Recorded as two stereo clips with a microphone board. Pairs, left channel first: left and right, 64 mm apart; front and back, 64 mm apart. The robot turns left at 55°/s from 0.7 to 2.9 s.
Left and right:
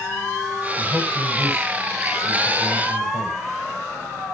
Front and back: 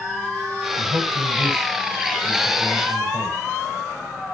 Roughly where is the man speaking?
Behind right.